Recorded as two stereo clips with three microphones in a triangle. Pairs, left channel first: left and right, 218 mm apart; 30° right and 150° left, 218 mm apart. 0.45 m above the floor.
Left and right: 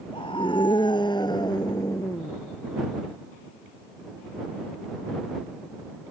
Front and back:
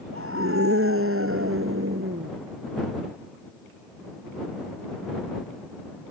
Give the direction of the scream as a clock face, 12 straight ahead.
7 o'clock.